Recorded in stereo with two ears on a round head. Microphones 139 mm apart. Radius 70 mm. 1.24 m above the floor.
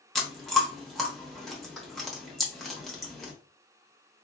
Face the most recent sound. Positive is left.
turn(degrees=0)  # may be behind; listen again after turning